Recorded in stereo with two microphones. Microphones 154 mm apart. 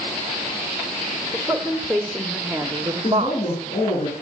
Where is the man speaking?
45° left (ahead or behind), 10 m.